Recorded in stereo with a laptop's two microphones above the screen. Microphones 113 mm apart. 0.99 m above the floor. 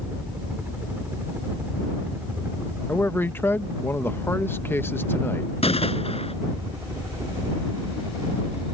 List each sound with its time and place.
0.0 s a helicopter: 15° right (ahead or behind); by 8.7 s 30° right (ahead or behind)
2.9 s a man speaking: 20° left (ahead or behind)
5.6 s a gunshot: 65° left (ahead or behind)